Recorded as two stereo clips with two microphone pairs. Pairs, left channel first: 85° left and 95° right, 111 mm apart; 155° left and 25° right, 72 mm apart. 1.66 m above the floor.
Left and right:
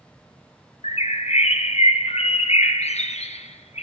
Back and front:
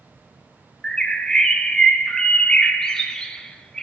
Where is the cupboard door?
I don't hear a cupboard door.